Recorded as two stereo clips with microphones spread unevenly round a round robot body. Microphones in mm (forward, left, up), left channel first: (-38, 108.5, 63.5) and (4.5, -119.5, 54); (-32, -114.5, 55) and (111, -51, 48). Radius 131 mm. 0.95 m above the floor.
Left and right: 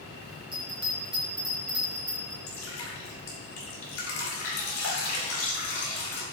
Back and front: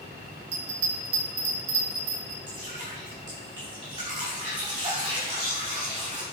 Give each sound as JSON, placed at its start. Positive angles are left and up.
{"t": 0.5, "sound": "a bell", "azimuth_deg": 5, "distance_m": 1.6}
{"t": 2.5, "sound": "dripping", "azimuth_deg": 90, "distance_m": 3.5}